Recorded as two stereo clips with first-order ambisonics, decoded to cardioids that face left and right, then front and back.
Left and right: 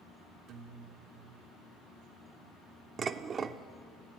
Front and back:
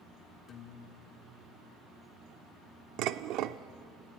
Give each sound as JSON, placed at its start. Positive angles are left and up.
{"t": 0.5, "sound": "a guitar", "azimuth_deg": -50, "distance_m": 1.4}
{"t": 3.0, "sound": "dishes clattering", "azimuth_deg": -155, "distance_m": 0.7}